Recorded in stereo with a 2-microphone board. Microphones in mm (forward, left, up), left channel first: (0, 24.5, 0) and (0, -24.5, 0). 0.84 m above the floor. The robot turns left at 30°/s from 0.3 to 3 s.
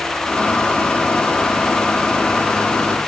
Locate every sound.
Only background noise.